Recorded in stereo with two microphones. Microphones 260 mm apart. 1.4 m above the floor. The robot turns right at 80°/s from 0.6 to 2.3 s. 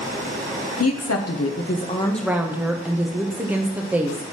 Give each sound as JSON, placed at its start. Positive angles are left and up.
{"t": 0.8, "sound": "a woman speaking", "azimuth_deg": 65, "distance_m": 0.7}